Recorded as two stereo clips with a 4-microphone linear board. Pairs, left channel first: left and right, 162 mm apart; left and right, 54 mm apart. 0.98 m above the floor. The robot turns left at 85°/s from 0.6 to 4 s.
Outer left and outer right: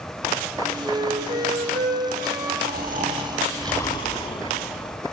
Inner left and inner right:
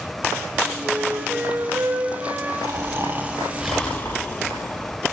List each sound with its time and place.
0.8 s a flute: 5° right, 8 m; by 2.5 s 150° right, 8 m
2.6 s snoring: 95° right, 3.5 m; by 5.0 s 145° left, 3.5 m